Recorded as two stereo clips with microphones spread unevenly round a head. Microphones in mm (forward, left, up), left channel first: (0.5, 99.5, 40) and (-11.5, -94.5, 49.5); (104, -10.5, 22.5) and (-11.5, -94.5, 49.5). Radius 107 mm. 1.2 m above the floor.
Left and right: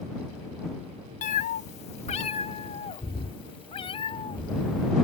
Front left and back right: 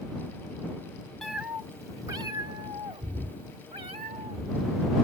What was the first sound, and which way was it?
A cat meowing, 135° left.